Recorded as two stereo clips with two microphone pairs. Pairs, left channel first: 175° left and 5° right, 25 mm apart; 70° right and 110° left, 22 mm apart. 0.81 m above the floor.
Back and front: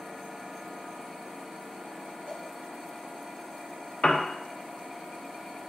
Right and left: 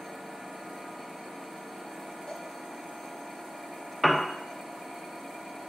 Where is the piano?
165° right, 0.6 m.